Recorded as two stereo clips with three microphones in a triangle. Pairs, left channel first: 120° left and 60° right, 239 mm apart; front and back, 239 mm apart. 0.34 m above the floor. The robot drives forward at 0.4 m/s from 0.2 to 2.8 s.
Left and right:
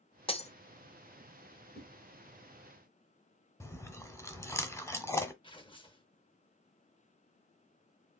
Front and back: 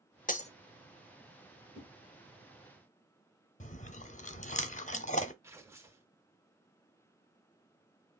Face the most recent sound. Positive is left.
turn(degrees=120)